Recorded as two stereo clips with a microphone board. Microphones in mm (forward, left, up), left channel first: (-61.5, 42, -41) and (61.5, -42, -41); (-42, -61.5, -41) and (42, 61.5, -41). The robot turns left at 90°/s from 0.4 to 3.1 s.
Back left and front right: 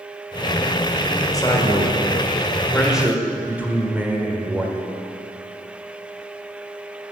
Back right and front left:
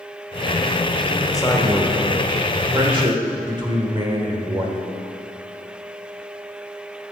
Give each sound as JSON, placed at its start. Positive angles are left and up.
{"t": 1.3, "sound": "a man speaking", "azimuth_deg": -165, "distance_m": 1.6}